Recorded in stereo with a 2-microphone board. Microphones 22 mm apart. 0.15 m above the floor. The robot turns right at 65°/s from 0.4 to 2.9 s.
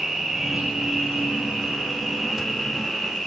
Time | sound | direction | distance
0.0 | an insect | 145° right | 6.5 m